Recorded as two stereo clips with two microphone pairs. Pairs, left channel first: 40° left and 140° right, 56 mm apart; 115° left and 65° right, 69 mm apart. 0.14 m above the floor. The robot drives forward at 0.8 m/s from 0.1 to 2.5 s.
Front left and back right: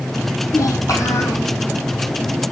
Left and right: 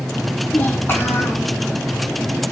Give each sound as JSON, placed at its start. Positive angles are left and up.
{"t": 0.5, "sound": "a child speaking", "azimuth_deg": 50, "distance_m": 5.0}